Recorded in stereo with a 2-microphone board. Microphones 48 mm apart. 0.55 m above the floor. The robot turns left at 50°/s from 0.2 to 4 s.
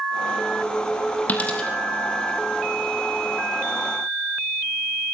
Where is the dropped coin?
30° left (ahead or behind), 4 m; by 1.7 s 10° left (ahead or behind), 4 m.